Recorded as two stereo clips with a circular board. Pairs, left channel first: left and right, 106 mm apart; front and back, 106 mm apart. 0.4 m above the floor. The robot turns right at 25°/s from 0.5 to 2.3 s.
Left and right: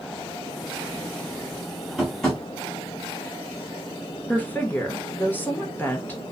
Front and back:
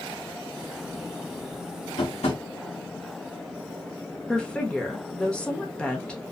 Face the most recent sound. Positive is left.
turn(degrees=60)